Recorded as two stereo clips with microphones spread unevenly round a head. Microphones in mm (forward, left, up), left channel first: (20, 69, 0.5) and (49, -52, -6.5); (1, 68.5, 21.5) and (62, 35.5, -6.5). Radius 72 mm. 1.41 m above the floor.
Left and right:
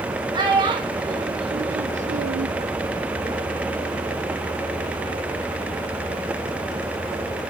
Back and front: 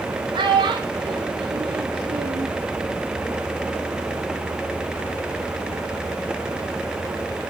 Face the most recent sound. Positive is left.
turn(degrees=-80)